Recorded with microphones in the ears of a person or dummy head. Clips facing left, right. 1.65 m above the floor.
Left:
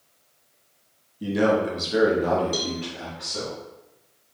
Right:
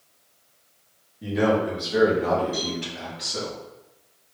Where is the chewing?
No chewing in this recording.